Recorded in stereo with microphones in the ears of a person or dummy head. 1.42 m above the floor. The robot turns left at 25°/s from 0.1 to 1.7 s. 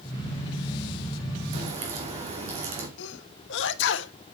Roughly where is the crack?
Right.